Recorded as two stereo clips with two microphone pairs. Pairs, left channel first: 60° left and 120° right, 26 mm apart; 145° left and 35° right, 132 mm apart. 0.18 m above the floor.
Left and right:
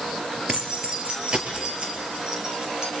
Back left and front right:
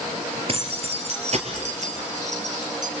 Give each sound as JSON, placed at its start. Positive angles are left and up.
{"t": 0.5, "sound": "keys jangling", "azimuth_deg": -75, "distance_m": 2.5}